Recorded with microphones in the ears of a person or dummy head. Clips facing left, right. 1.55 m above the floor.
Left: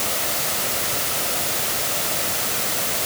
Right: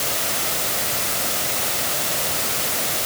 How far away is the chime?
I don't hear a chime.